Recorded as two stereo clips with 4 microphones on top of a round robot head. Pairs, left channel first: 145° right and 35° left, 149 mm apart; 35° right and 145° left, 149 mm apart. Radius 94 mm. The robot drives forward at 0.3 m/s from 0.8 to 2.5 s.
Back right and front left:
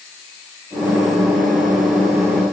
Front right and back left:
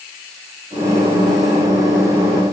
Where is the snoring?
I don't hear snoring.